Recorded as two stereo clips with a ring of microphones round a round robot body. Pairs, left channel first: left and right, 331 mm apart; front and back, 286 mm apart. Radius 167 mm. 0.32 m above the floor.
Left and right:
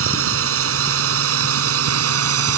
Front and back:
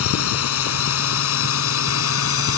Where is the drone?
40° right; by 2.6 s 45° right.